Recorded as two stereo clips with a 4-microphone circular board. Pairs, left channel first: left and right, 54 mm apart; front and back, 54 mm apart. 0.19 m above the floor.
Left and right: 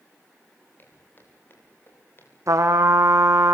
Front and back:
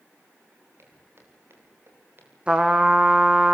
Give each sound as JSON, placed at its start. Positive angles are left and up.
{"t": 0.8, "sound": "footsteps", "azimuth_deg": 140, "distance_m": 8.5}
{"t": 2.5, "sound": "a trumpet", "azimuth_deg": -110, "distance_m": 2.0}